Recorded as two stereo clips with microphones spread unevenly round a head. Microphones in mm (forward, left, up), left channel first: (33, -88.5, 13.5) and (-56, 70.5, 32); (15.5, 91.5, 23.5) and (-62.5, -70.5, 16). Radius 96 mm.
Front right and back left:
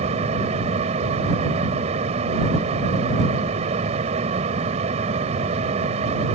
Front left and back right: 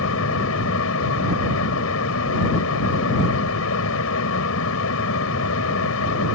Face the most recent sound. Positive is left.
turn(degrees=60)